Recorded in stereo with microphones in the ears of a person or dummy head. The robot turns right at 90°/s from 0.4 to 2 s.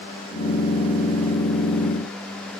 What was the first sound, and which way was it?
Only background noise.